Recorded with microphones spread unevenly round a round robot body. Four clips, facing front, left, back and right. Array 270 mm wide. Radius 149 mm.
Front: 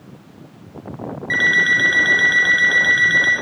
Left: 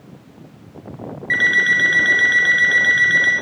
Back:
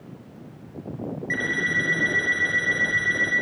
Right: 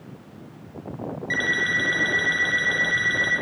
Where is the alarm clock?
5° left, 4 m.